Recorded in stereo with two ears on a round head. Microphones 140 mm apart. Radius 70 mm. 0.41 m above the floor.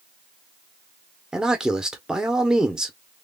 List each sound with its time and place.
1.3 s a man speaking: 5° right (ahead or behind), 0.7 m